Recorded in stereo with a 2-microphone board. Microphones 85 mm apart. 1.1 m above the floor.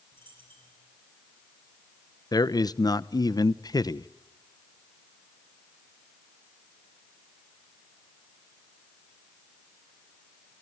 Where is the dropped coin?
85° right, 9 m.